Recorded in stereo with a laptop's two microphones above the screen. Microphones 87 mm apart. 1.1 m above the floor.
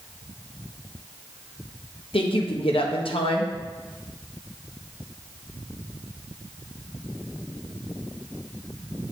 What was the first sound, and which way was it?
A woman speaking, 75° left (ahead or behind).